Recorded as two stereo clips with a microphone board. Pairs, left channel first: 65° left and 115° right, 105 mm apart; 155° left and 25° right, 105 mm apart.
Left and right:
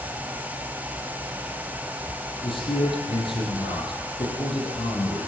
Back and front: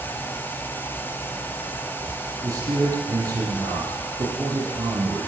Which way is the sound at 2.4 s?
35° left.